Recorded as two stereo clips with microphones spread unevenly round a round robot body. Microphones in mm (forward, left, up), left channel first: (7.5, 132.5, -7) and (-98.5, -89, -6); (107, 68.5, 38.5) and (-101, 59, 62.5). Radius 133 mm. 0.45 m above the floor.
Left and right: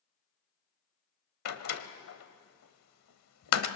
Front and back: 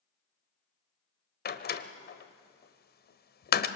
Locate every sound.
1.4 s a door slam: 35° left, 1.3 m